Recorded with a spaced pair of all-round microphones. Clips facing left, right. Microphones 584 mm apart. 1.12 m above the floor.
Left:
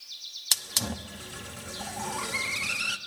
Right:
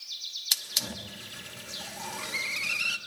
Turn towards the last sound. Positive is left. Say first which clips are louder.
# left 6 dB
turn(degrees=75)  # may be behind; listen again after turning